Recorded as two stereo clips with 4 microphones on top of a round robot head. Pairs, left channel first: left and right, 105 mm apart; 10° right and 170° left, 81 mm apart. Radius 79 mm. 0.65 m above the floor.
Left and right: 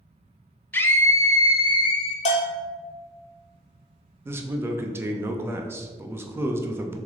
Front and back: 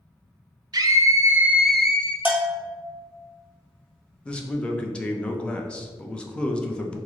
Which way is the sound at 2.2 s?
100° left.